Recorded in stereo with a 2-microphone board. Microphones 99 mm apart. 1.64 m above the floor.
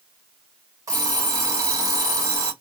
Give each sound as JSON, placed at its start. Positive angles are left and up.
{"t": 0.9, "sound": "an alarm clock", "side_deg": -35, "distance_m": 1.7}